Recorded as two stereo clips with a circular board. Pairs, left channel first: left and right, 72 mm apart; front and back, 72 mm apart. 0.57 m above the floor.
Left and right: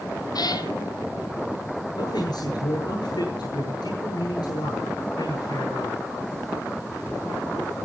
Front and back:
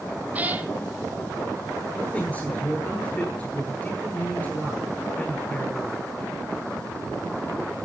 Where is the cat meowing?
115° left, 1.6 m.